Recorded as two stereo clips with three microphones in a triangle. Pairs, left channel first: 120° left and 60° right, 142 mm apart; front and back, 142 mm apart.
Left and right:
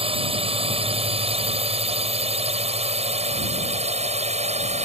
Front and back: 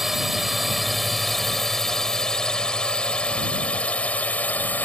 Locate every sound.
0.0 s a drone: 90° right; by 4.8 s 75° right